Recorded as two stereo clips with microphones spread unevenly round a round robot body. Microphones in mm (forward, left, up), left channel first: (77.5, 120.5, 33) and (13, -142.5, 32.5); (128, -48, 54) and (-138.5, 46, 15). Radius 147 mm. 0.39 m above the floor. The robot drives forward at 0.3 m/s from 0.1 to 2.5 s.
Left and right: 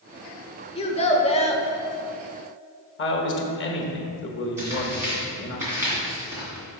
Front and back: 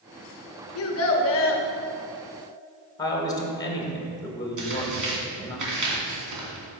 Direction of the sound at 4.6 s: 175° left.